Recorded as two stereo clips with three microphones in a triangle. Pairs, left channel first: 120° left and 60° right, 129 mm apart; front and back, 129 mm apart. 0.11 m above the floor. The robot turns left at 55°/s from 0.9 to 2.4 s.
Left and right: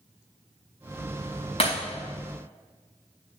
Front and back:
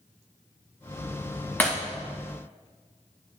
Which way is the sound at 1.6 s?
75° left.